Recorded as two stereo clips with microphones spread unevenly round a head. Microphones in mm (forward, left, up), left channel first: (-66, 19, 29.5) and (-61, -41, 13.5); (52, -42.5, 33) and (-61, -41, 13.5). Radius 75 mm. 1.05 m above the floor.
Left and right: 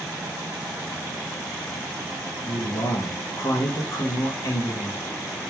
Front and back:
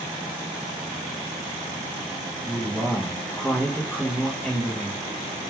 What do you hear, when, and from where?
2.5 s a man speaking: 90° left, 0.6 m